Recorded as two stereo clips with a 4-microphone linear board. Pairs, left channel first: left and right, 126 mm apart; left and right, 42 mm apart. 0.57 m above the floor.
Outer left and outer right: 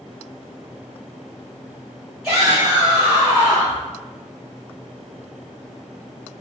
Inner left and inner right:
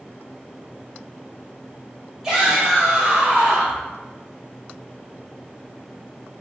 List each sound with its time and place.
2.2 s a shout: 5° right (ahead or behind), 1.9 m; by 3.8 s 30° right (ahead or behind), 1.2 m